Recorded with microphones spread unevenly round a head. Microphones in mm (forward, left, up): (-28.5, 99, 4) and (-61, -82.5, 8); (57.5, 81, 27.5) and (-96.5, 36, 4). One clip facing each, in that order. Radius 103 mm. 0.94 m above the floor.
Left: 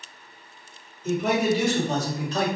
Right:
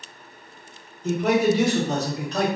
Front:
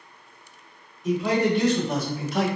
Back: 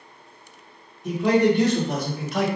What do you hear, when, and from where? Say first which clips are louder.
1.0 s a man speaking: right 3 dB, back 3 dB; 75° right, 1.4 m; by 2.5 s 140° right, 1.1 m